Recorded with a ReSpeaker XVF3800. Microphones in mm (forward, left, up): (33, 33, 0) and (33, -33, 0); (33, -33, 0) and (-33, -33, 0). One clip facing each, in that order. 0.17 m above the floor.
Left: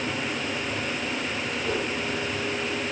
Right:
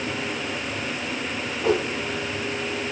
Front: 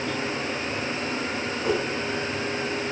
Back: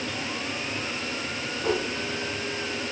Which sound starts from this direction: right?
A whoosh, at 1.6 s.